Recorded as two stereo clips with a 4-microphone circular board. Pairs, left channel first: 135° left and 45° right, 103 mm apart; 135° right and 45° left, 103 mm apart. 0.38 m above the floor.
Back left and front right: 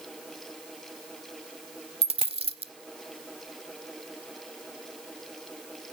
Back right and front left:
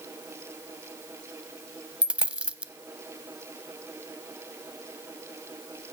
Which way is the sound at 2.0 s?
35° right.